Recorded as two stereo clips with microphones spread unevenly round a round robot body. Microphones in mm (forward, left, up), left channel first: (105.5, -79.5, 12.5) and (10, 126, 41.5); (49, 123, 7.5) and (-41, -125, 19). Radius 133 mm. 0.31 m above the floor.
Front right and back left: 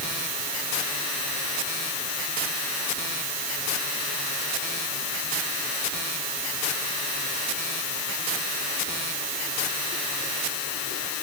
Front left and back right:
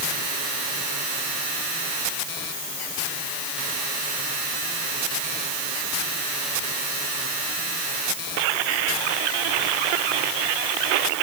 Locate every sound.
Only background noise.